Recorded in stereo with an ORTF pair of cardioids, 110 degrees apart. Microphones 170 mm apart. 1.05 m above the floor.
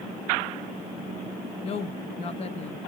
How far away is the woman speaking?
About 0.9 m.